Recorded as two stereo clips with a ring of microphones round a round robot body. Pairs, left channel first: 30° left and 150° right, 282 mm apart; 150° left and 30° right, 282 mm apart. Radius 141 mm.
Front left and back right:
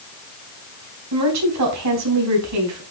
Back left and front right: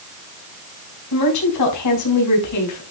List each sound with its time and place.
1.1 s a woman speaking: 175° left, 4.5 m